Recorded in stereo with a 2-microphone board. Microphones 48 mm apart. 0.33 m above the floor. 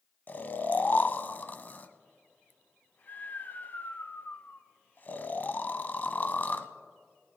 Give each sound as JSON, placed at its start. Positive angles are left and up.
{"t": 0.3, "sound": "snoring", "side_deg": 40, "distance_m": 0.6}